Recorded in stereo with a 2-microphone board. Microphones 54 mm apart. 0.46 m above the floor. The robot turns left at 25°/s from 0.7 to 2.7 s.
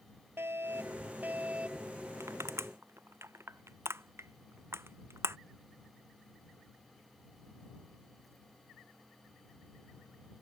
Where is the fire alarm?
135° right; by 1.9 s 165° right.